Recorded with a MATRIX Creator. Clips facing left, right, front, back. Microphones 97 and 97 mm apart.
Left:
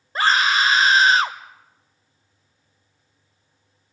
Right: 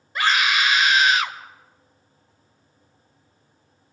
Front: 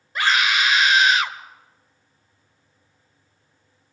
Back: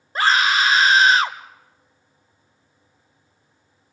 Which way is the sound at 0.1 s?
135° left.